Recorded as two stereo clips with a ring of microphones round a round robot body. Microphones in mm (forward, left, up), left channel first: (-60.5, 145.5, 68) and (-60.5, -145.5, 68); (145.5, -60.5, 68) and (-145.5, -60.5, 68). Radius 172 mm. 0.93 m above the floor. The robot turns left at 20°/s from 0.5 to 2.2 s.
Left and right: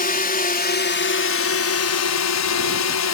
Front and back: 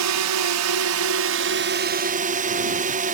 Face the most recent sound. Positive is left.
turn(degrees=115)